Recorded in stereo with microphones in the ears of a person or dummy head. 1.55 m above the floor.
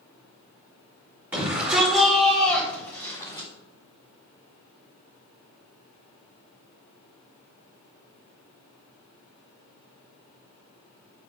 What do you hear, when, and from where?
1.3 s a shout: 5° right (ahead or behind), 4.5 m; by 3.5 s 25° left (ahead or behind), 4 m